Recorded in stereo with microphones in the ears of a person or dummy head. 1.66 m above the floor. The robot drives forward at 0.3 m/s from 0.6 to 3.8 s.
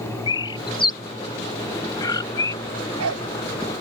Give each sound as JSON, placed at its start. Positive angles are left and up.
{"t": 0.3, "sound": "a bird", "side_deg": 25}
{"t": 2.6, "sound": "a dog barking", "side_deg": -85}